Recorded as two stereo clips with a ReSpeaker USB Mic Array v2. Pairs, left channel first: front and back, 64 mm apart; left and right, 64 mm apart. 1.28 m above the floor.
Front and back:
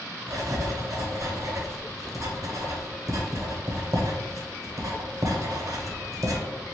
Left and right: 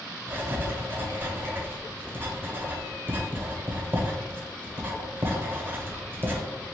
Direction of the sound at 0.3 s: 145° right.